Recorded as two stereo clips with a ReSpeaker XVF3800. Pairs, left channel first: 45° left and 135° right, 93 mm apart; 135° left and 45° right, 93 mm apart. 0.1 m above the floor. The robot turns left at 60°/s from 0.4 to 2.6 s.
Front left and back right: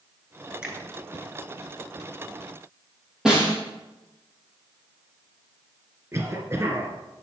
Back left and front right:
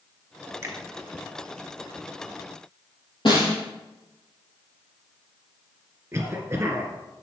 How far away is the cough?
About 2 m.